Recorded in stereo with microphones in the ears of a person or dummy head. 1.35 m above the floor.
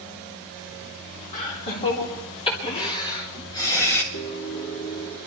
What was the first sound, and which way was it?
Laughter, 40° left (ahead or behind).